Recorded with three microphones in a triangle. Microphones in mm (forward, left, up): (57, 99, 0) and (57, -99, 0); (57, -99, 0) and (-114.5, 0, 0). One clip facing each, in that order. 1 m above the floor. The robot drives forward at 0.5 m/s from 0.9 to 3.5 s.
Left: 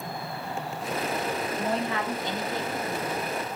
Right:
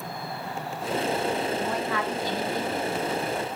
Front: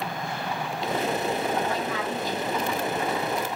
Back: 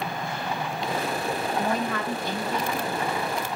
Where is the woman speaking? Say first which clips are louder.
Even, back 1 dB; 135° left, 0.6 m; by 3.4 s 165° left, 1.3 m.